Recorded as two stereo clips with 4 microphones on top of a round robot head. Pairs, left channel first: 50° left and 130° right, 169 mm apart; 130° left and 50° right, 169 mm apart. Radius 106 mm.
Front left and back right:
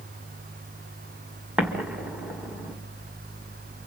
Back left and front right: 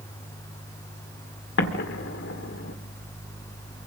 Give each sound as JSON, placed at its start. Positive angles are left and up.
{"t": 1.6, "sound": "an explosion", "azimuth_deg": 145, "distance_m": 1.9}